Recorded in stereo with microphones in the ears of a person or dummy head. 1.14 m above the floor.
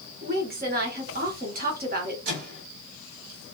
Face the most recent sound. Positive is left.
turn(degrees=-50)  # may be behind; listen again after turning